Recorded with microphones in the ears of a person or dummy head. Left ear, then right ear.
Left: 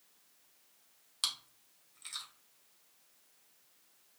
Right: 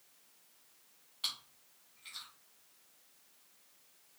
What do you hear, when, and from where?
1.2 s chewing: 60° left (ahead or behind), 1.8 m